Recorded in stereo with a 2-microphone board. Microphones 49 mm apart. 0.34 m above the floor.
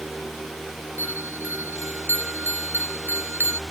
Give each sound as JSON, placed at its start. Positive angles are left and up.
{"t": 1.0, "sound": "a bell", "side_deg": -50}